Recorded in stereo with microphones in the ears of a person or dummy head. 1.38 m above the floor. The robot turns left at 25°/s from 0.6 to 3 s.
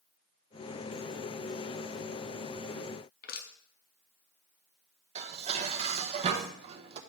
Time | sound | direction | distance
3.2 | crushing | 45° left (ahead or behind) | 0.6 m
5.2 | dishes clattering | 35° right (ahead or behind) | 0.7 m